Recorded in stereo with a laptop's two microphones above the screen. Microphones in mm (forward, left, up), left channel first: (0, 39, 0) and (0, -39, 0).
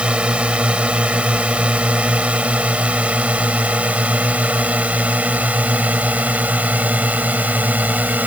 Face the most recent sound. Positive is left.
turn(degrees=-20)  # may be behind; listen again after turning